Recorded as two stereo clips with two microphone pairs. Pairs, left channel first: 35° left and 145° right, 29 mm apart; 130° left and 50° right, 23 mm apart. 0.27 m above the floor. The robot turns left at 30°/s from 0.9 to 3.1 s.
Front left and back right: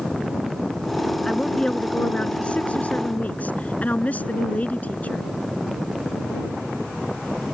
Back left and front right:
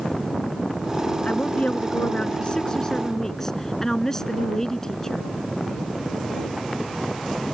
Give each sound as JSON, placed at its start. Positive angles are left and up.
{"t": 1.2, "sound": "a woman speaking", "azimuth_deg": 115}